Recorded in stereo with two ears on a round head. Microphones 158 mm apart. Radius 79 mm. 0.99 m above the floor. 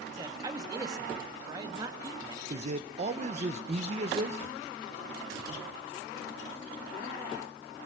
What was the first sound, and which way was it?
A man speaking, 25° right (ahead or behind).